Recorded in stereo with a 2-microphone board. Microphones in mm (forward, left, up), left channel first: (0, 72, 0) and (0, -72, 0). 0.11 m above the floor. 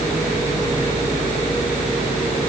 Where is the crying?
I don't hear crying.